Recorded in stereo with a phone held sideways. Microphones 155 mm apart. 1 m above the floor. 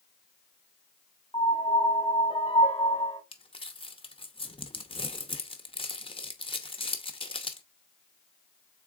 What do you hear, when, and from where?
1.3 s a piano: 35° left (ahead or behind), 0.9 m
3.3 s crumpling: 35° left (ahead or behind), 0.7 m